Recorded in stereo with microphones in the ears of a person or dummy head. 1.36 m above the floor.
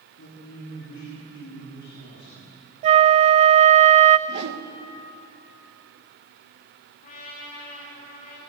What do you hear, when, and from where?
0.2 s a man speaking: 70° left (ahead or behind), 9 m; by 2.6 s 50° left (ahead or behind), 8 m
2.8 s a flute: 40° right (ahead or behind), 0.5 m
4.3 s a whoosh: 60° right (ahead or behind), 1.4 m
7.0 s a trumpet: 40° left (ahead or behind), 4.5 m